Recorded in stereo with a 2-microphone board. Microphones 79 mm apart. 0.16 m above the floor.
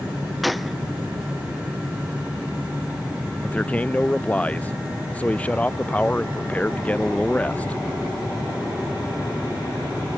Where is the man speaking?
15° left (ahead or behind).